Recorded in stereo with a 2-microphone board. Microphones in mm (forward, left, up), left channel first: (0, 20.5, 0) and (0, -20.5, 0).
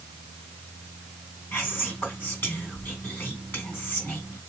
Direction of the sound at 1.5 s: 55° left (ahead or behind).